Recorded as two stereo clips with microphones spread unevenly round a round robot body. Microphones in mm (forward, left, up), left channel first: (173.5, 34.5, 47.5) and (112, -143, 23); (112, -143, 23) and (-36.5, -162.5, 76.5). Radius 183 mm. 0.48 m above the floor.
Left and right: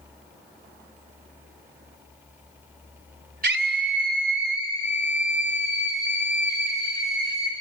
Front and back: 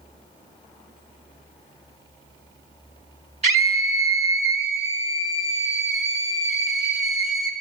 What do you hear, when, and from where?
3.4 s a scream: 120° right, 1.9 m